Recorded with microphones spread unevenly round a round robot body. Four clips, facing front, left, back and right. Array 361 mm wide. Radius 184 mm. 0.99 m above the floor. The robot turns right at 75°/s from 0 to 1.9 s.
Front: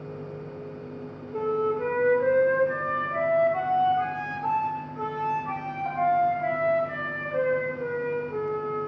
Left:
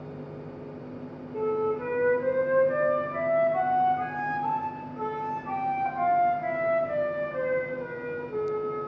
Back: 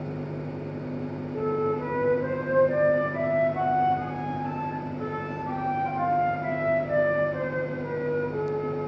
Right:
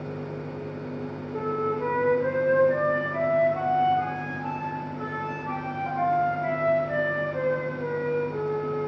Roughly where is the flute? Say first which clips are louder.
Left 1 dB, front 1 dB; ahead right.